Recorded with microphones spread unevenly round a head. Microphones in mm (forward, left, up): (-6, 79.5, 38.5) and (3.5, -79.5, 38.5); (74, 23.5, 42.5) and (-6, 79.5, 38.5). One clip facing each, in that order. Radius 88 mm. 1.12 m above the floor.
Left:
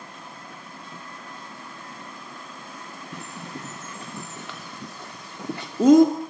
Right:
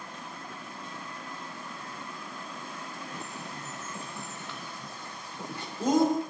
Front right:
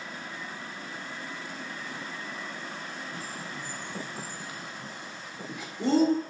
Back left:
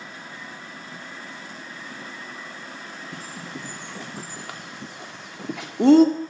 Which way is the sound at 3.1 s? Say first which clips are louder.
Left 3 dB, back left 2 dB; 125° left.